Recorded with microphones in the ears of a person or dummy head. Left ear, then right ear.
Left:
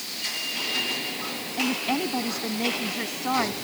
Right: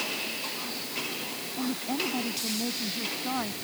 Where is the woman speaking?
75° left (ahead or behind).